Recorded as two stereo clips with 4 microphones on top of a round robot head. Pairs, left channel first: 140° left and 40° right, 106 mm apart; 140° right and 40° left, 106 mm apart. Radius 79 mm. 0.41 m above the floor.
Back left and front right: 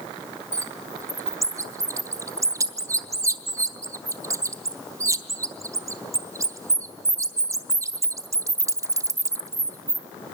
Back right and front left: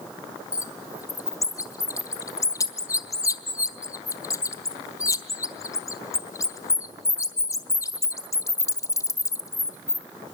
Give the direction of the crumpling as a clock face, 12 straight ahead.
I don't hear crumpling.